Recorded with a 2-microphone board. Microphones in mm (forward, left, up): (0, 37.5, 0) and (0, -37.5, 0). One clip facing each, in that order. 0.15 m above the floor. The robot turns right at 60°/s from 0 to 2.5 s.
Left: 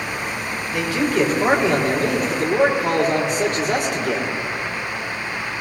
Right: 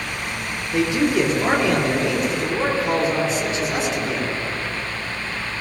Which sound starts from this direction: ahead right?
A man speaking, at 0.7 s.